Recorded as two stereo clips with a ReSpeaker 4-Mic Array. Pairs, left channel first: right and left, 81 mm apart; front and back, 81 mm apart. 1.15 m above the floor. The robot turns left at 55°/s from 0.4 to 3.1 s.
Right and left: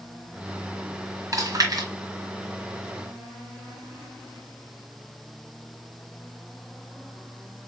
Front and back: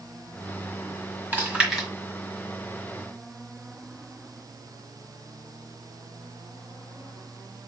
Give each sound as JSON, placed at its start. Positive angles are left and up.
{"t": 1.3, "sound": "chewing", "azimuth_deg": 120, "distance_m": 1.5}